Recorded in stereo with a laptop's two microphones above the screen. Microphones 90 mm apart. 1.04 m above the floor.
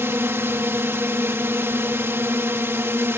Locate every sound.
0.0 s a drone: 30° right (ahead or behind)